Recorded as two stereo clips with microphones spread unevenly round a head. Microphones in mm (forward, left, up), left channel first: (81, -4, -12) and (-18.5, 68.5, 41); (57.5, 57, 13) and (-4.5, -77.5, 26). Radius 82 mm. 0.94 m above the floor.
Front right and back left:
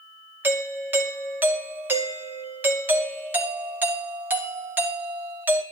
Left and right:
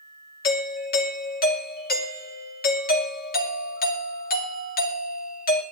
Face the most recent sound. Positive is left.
turn(degrees=60)